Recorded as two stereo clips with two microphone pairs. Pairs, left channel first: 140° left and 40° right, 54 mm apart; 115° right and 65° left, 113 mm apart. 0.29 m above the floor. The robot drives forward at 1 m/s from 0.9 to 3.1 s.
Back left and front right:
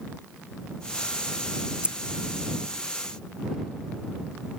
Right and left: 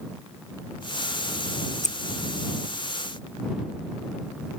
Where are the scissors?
110° right.